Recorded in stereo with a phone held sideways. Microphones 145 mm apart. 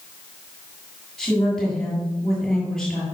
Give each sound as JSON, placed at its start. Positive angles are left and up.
{"t": 1.2, "sound": "a woman speaking", "side_deg": 5, "distance_m": 7.5}